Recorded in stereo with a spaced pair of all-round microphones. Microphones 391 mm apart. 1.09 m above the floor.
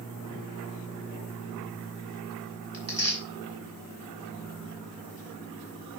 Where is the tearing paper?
40° right (ahead or behind), 3 m.